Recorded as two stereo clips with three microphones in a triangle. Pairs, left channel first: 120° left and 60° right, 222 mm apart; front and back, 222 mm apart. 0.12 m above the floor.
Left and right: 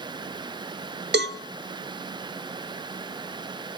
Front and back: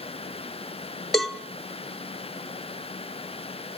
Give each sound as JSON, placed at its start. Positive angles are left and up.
{"t": 1.1, "sound": "a cowbell", "azimuth_deg": -90, "distance_m": 0.8}